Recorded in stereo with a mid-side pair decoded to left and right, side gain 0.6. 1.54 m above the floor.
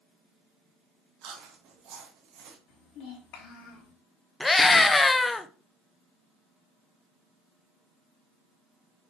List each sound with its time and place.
1.2 s chewing: 70° right, 1.3 m
2.7 s a child speaking: 65° left, 2.0 m
4.4 s a scream: 20° left, 0.8 m